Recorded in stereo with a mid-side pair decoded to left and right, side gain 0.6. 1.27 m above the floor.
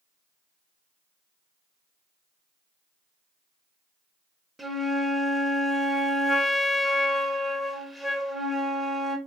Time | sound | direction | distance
4.6 | a flute | 5° right | 0.7 m